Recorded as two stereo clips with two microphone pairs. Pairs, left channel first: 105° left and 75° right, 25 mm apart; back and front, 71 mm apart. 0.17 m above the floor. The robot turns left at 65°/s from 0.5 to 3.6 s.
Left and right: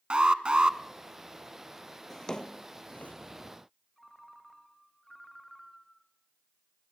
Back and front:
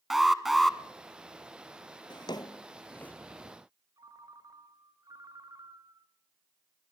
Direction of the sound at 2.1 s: Straight behind.